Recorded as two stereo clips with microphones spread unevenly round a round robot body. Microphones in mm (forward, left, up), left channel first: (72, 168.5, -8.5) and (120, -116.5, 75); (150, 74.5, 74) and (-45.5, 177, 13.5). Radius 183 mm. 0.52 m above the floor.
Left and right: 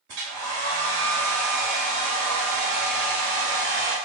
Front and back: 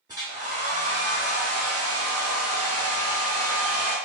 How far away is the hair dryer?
About 0.9 m.